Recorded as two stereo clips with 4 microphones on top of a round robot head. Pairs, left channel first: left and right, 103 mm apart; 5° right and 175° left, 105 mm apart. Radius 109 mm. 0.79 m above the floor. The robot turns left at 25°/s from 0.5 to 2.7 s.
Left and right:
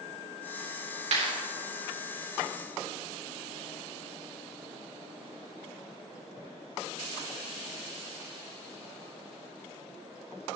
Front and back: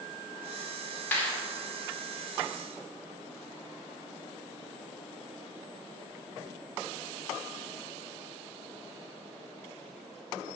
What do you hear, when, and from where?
1.1 s a clap: 80° right, 2.5 m; by 1.3 s 85° right, 2.5 m